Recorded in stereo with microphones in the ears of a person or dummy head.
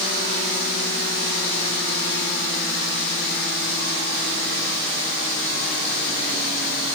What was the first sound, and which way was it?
Only background noise.